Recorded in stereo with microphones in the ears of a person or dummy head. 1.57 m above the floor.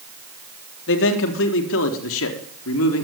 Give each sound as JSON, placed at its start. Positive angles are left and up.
{"t": 0.9, "sound": "a man speaking", "side_deg": 70, "distance_m": 3.5}